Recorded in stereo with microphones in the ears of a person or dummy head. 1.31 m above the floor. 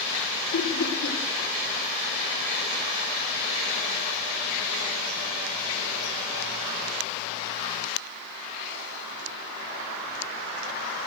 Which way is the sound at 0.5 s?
70° left (ahead or behind).